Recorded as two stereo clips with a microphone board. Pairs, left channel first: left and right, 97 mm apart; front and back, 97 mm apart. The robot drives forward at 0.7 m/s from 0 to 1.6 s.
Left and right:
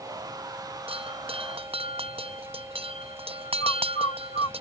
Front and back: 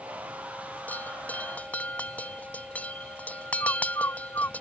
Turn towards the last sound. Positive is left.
turn(degrees=60)